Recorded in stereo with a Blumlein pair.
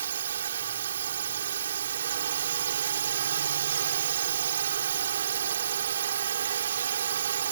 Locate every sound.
0.0 s a drone: 65° right